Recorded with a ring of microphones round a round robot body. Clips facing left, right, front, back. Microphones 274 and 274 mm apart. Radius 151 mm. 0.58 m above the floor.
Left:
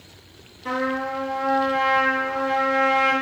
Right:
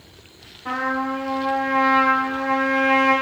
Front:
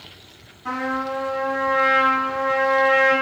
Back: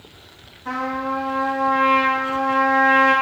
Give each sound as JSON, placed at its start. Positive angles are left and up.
{"t": 0.7, "sound": "a trumpet", "azimuth_deg": 10, "distance_m": 1.7}